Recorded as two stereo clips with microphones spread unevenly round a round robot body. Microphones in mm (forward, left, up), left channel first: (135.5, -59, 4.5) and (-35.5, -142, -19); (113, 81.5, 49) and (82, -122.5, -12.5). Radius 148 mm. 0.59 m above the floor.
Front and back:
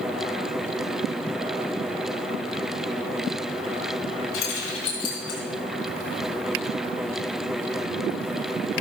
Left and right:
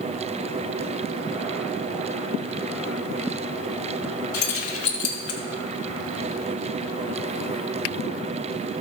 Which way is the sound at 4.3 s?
65° left.